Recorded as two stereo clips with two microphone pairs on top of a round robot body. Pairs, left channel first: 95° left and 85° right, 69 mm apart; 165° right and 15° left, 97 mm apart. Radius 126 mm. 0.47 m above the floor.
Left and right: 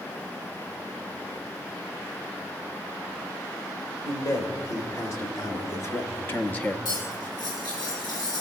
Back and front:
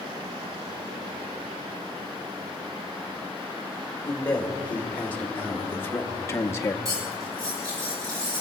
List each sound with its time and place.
4.0 s a man speaking: 125° left, 2 m; by 6.8 s 160° left, 0.9 m
6.8 s cutlery clinking: 75° left, 3.5 m